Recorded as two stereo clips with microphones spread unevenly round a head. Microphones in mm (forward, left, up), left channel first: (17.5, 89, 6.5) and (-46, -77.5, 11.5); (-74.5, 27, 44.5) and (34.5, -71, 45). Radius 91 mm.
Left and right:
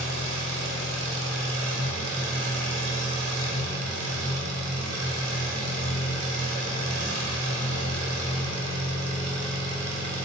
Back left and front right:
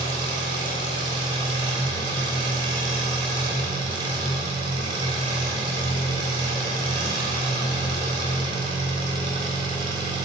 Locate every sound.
0.0 s an engine running: 100° right, 3 m